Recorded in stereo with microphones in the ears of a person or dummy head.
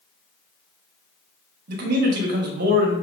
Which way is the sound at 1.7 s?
50° right (ahead or behind).